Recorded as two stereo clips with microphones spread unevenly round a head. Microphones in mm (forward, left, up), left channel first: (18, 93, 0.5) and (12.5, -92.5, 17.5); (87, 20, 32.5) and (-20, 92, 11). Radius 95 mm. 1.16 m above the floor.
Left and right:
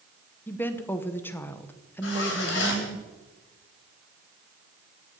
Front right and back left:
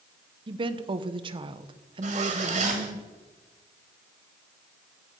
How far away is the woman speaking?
About 0.8 m.